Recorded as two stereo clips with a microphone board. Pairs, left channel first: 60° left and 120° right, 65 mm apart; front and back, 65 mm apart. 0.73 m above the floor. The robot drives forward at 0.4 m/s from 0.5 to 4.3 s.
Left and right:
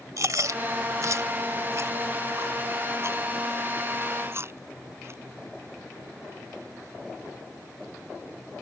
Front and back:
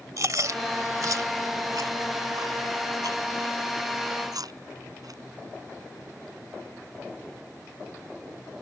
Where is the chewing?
150° right; by 5.2 s 170° right.